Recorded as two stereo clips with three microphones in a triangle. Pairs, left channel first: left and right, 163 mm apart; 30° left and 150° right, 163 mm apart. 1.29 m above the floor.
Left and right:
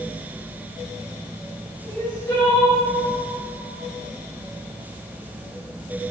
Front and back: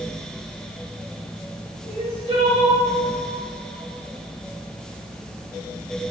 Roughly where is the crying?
Behind.